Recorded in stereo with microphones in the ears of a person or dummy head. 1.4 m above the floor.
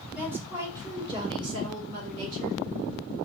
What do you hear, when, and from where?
0.1 s a woman speaking: 10° right (ahead or behind), 2.0 m; by 2.6 s 50° right (ahead or behind), 2 m